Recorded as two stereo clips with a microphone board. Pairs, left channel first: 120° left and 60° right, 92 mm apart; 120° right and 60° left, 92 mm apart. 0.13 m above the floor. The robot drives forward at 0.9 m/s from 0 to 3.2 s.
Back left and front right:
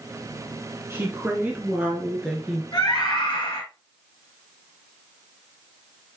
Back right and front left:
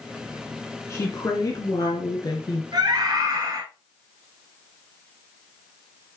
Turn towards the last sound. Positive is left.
turn(degrees=105)